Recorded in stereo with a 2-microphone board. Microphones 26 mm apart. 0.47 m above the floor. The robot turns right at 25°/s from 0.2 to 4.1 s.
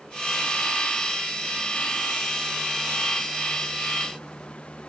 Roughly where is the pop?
No pop in this recording.